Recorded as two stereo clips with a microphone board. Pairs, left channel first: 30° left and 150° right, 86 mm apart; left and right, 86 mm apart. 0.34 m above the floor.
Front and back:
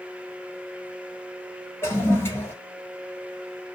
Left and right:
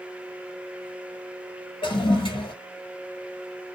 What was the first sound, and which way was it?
A toilet flushing, 90° left.